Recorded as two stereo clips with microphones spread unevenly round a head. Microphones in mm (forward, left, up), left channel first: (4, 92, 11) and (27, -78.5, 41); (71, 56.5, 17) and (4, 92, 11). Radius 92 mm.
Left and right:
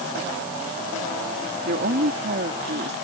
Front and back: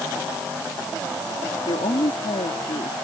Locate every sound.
1.6 s a woman speaking: 50° right